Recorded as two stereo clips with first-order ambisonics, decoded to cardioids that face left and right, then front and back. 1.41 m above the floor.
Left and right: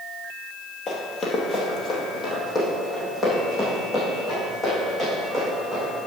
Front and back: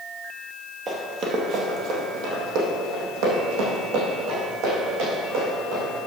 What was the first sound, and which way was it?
Running footsteps, 145° left.